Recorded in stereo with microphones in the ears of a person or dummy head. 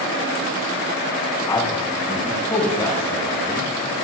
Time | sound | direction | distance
1.5 | a man speaking | 25° left (ahead or behind) | 4 m